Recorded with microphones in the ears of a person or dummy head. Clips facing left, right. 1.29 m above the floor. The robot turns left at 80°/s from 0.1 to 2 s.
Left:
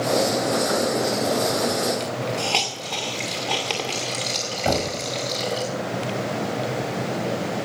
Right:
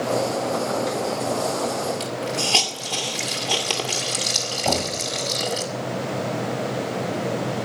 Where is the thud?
25° left (ahead or behind), 2.0 m.